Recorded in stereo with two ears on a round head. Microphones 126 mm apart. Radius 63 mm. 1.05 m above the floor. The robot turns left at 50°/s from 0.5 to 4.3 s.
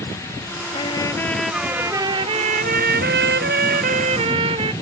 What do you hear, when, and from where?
0.7 s a trumpet: 40° left; by 4.7 s 140° right